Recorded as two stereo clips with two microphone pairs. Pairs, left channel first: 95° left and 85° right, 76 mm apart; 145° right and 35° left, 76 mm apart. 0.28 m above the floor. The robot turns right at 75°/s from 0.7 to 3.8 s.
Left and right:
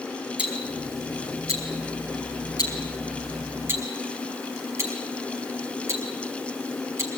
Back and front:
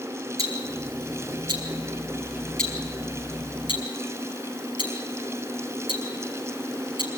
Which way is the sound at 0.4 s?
10° right.